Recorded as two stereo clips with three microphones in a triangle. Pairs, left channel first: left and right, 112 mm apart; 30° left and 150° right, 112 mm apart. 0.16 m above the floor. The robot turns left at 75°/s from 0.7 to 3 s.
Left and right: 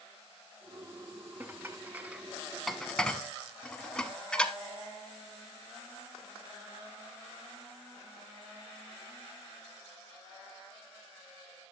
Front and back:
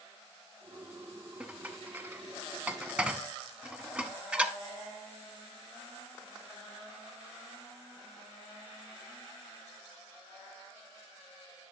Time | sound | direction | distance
1.4 | dishes clattering | 85° right | 0.7 m